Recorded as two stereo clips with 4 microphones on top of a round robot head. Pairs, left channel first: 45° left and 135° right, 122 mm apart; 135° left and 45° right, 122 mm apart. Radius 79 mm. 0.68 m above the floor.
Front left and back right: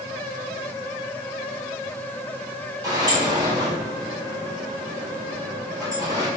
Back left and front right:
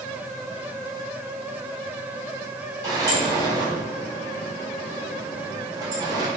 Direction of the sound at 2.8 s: 90° right.